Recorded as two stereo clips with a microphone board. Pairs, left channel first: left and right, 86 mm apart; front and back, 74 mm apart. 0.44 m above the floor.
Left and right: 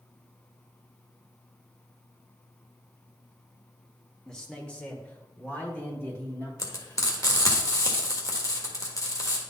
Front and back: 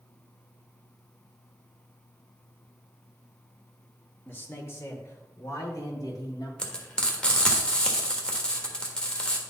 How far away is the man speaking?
About 1.1 m.